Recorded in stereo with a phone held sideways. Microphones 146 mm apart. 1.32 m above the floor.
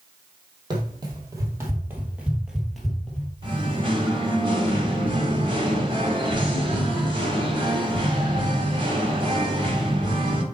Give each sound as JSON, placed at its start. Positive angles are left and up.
{"t": 0.7, "sound": "running footsteps", "side_deg": -30, "distance_m": 2.5}
{"t": 3.4, "sound": "singing", "side_deg": -35, "distance_m": 1.6}